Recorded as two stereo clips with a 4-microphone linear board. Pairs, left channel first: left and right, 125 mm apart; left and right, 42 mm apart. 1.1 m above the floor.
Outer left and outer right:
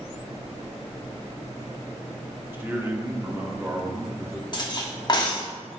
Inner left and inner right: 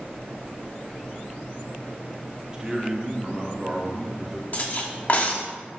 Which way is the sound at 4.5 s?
40° left (ahead or behind).